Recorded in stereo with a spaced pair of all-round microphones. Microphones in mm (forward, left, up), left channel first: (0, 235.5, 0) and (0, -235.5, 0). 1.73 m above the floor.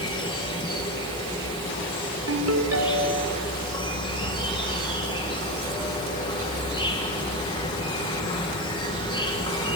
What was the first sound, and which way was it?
An insect, 10° left (ahead or behind).